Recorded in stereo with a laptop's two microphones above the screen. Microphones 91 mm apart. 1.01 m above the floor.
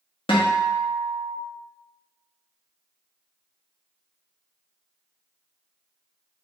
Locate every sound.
0.3 s a guitar: 70° left (ahead or behind), 0.8 m